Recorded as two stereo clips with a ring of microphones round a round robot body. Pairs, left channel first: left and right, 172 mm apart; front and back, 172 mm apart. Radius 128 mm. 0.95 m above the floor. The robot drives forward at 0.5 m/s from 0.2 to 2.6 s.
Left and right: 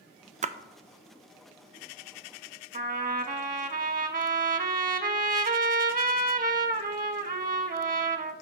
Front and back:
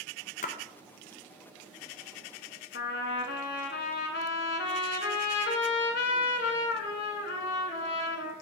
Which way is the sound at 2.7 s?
50° right.